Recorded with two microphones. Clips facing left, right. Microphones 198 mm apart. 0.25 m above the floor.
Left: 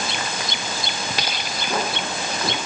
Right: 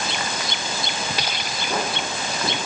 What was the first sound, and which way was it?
Only background noise.